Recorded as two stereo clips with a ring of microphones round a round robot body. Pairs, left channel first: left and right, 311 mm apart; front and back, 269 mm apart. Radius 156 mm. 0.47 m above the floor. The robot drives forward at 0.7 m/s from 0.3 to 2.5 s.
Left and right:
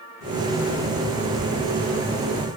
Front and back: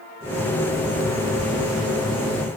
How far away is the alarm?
No alarm in this recording.